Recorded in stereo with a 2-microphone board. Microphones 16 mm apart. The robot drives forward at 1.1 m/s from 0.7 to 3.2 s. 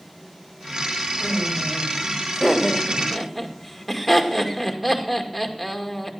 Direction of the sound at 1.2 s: 5° right (ahead or behind).